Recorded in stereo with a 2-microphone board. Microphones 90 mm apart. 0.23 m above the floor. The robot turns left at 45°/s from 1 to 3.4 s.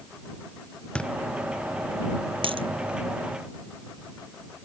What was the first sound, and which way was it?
A thud, 10° left (ahead or behind).